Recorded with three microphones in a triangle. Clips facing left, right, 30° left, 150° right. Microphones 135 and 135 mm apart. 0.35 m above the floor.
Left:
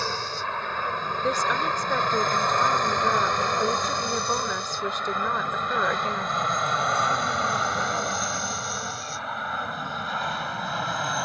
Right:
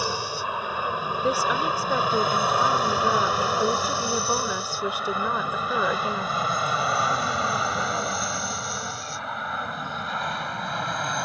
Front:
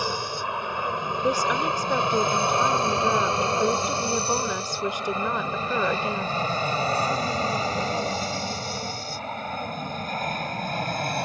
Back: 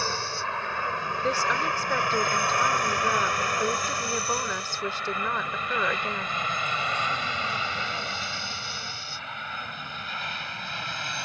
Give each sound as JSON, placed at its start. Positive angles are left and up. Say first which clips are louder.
{"t": 0.0, "sound": "an aircraft", "louder": "right 2 dB, front 3 dB", "azimuth_deg": -25}
{"t": 1.2, "sound": "a woman speaking", "louder": "right 2 dB, front 3 dB", "azimuth_deg": -20}